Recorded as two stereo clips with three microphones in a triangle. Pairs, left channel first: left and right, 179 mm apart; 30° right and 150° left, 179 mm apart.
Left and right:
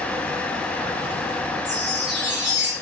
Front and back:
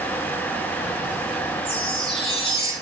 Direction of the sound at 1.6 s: 90° right.